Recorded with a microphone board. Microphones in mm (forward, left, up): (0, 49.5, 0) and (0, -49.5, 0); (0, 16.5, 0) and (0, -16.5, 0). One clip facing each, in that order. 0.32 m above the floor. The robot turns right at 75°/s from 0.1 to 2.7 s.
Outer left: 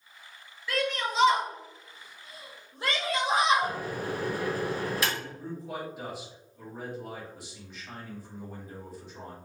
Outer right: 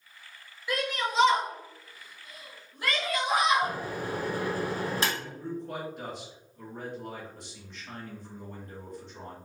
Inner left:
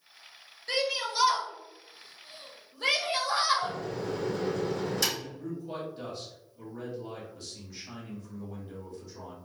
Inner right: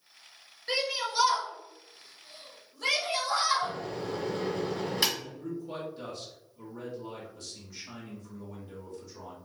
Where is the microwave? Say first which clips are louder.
Even, inner left 1 dB; 30° right (ahead or behind), 1.4 m.